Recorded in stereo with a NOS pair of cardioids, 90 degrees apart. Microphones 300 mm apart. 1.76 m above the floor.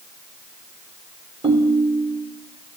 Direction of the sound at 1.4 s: 20° right.